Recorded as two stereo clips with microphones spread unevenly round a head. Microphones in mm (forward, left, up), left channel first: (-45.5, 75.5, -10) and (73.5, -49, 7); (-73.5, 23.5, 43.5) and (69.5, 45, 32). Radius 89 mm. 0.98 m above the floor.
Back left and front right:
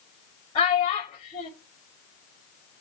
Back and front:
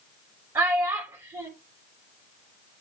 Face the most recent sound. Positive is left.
turn(degrees=75)